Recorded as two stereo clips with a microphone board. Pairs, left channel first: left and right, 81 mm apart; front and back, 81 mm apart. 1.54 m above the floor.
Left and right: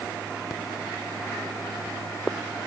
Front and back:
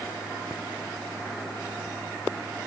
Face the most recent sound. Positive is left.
No sound to turn to.